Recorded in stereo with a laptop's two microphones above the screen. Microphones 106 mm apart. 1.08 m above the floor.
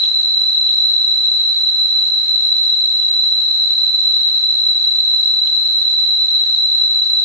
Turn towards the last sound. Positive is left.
turn(degrees=25)  # may be behind; listen again after turning